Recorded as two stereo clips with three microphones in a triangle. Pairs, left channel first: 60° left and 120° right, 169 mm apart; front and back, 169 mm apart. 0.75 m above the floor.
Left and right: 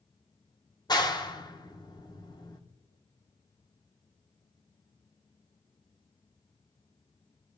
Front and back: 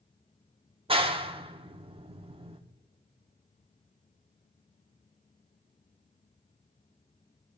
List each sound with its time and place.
0.9 s a clap: 125° left, 1.3 m